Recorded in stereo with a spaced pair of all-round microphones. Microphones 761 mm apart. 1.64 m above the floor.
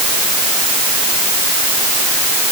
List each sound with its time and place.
Only background noise.